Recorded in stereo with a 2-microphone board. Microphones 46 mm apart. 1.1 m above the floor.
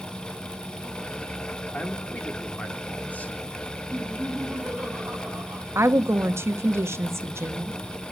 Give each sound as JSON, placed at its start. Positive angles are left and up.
{"t": 1.7, "sound": "a man speaking", "side_deg": 30, "distance_m": 2.5}
{"t": 3.9, "sound": "laughter", "side_deg": -10, "distance_m": 8.5}
{"t": 5.8, "sound": "a woman speaking", "side_deg": -70, "distance_m": 1.3}